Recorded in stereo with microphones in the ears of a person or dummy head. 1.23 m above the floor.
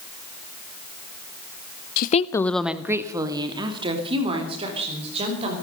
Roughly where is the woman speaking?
Left.